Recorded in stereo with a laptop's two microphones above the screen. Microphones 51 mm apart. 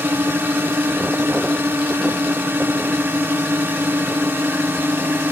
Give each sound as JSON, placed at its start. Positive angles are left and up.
{"t": 0.0, "sound": "a drone", "side_deg": -45}